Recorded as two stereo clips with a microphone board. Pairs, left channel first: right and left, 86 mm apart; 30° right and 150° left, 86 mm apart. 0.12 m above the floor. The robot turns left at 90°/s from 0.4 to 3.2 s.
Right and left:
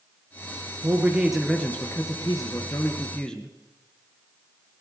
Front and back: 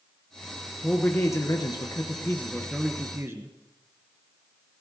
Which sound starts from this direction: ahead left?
A man speaking, at 0.8 s.